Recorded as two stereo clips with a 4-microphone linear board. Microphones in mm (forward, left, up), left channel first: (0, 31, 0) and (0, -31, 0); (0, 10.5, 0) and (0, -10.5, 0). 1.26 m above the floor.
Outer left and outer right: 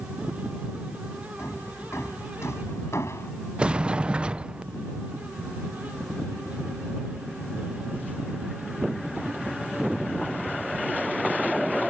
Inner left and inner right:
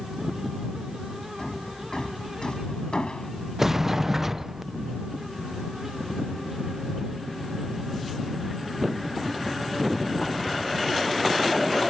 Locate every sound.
1.4 s hammering: 50° left (ahead or behind)
3.6 s a sliding door: 15° right (ahead or behind)